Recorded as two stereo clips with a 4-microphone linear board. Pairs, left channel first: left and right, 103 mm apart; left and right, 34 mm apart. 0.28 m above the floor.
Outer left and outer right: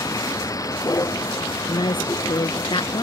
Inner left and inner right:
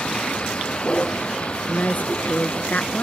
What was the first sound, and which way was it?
A vehicle, 30° left (ahead or behind).